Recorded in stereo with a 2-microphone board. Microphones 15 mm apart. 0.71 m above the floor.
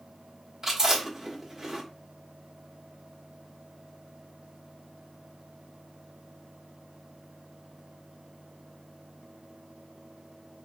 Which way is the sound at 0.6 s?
35° right (ahead or behind).